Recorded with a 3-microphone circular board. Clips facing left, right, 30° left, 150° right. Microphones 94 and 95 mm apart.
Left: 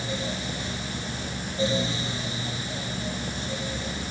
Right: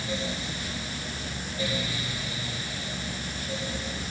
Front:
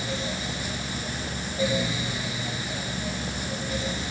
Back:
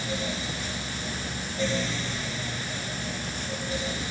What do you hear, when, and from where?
Only background noise.